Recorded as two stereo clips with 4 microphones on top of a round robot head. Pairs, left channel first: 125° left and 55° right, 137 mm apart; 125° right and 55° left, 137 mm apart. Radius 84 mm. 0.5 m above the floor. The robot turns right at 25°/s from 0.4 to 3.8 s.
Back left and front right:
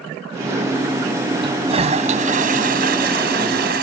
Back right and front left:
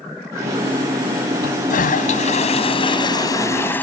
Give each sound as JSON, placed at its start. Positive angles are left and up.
{"t": 1.4, "sound": "a toilet flushing", "azimuth_deg": -110}